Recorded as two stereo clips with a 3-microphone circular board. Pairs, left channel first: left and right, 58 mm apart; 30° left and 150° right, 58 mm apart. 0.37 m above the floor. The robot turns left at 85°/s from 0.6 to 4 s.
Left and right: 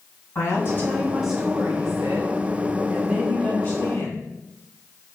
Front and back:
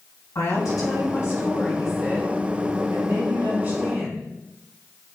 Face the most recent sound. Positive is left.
turn(degrees=120)